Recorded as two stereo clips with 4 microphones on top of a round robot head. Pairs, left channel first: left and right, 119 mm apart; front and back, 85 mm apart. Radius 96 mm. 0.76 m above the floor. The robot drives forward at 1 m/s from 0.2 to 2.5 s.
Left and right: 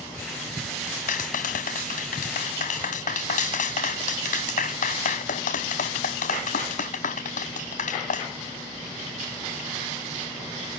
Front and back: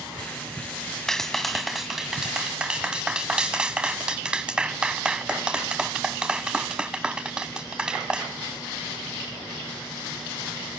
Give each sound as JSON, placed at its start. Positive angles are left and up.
{"t": 1.1, "sound": "a clap", "azimuth_deg": 80}